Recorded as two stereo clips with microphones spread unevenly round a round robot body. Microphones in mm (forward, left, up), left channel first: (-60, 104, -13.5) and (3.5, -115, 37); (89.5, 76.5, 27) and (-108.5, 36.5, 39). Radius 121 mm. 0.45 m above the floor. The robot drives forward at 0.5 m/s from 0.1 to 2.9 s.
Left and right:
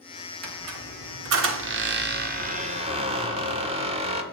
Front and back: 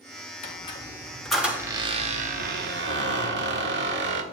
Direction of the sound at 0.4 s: 40° right.